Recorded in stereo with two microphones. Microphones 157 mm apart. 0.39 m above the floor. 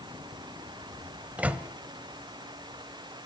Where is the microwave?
10° right (ahead or behind), 1.3 m.